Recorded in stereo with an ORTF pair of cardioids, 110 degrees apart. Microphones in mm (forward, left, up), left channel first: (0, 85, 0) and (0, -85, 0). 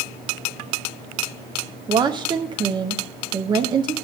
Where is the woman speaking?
25° right, 0.5 m.